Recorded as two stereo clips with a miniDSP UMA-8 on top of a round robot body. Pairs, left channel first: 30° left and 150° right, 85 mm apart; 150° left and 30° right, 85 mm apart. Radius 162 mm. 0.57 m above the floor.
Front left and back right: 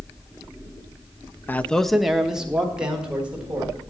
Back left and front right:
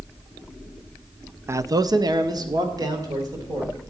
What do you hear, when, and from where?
1.5 s a man speaking: 15° right, 0.6 m; by 3.7 s 75° right, 3 m